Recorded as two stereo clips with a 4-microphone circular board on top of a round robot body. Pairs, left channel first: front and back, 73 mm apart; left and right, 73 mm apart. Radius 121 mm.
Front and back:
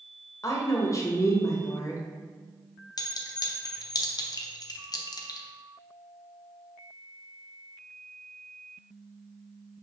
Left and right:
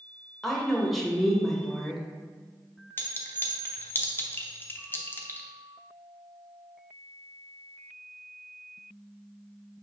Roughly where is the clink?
Ahead left.